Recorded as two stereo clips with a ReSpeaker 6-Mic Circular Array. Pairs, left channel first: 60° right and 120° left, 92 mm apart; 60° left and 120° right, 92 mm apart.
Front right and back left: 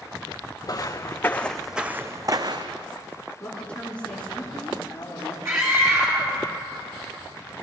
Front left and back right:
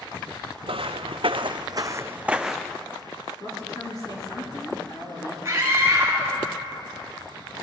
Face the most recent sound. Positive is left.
turn(degrees=180)